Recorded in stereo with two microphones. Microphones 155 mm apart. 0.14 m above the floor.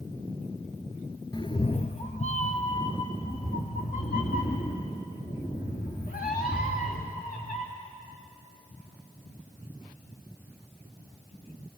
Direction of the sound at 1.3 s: 25° left (ahead or behind).